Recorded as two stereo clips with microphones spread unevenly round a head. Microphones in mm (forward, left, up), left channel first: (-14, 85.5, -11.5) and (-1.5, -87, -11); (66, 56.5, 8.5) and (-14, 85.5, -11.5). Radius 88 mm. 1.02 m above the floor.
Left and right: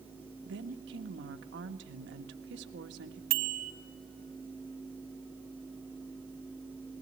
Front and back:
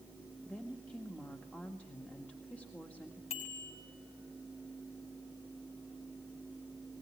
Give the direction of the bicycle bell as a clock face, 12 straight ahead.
2 o'clock.